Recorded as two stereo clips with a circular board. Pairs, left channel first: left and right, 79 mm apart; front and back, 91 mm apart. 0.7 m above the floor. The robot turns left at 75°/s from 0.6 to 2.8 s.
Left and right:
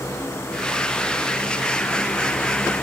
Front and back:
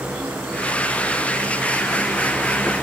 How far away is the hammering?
I don't hear hammering.